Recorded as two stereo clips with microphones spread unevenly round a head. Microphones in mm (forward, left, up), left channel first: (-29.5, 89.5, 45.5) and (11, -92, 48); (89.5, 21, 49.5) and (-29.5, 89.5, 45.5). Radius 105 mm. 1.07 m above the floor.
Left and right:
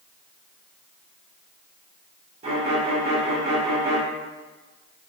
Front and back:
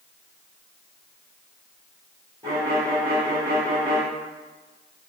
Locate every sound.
2.4 s a violin: 135° right, 1.5 m